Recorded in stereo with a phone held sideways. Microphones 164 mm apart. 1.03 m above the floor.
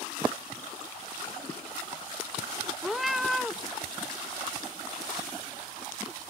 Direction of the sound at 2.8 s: Centre (ahead or behind).